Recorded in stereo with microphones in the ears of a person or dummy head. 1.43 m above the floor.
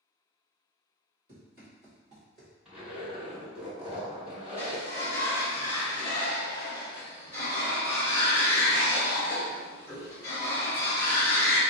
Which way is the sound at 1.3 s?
15° right (ahead or behind).